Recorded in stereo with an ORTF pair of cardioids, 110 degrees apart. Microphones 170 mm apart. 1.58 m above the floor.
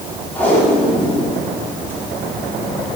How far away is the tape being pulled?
About 4.5 m.